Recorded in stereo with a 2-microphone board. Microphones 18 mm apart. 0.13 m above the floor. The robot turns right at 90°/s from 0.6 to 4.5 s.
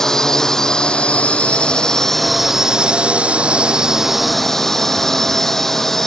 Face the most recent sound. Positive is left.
turn(degrees=15)